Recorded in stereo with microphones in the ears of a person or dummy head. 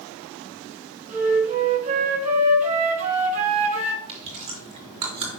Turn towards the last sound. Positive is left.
turn(degrees=-35)  # may be behind; listen again after turning